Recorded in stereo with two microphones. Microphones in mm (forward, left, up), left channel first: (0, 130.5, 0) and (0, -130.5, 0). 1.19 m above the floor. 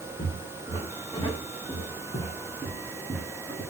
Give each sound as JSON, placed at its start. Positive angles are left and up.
{"t": 0.2, "sound": "footsteps", "side_deg": 25, "distance_m": 5.0}